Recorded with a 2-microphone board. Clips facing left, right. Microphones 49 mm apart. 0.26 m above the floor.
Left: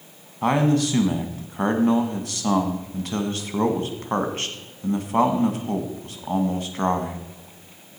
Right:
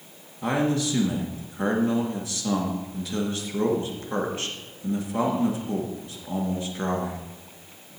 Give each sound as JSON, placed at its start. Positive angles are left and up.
{"t": 0.4, "sound": "a man speaking", "side_deg": 55, "distance_m": 1.8}